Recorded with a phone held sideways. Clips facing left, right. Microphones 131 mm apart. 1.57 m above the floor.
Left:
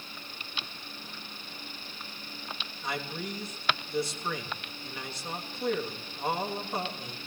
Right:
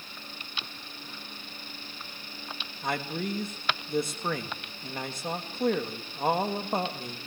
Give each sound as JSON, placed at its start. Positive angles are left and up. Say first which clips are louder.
{"t": 2.8, "sound": "a man speaking", "louder": "right 4 dB", "side_deg": -50, "distance_m": 3.0}